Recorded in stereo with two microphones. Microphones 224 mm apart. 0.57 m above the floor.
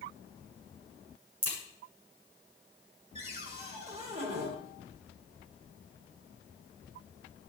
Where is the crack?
80° right, 7.5 m.